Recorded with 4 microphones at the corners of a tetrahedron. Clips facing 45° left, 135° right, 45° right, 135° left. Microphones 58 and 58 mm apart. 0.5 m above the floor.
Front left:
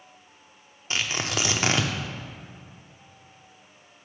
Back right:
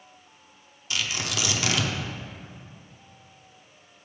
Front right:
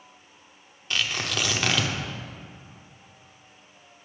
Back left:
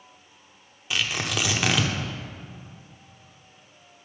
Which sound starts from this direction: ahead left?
Tearing paper, at 0.9 s.